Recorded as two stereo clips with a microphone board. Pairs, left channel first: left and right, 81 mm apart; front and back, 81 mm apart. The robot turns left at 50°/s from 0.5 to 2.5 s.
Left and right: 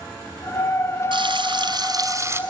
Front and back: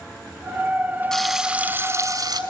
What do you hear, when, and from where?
1.1 s frying: 85° right, 3.5 m; by 2.4 s 150° right, 3.5 m